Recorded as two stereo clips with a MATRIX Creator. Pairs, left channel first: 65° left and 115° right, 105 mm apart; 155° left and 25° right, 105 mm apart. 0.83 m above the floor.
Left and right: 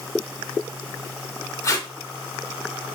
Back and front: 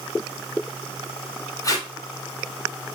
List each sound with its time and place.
1.6 s tape being pulled: 115° left, 0.6 m